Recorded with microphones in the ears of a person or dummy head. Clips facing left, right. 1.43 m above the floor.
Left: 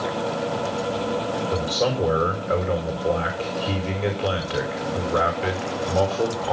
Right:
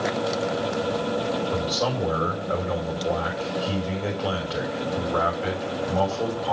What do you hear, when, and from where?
1.5 s a man speaking: 40° left (ahead or behind), 4 m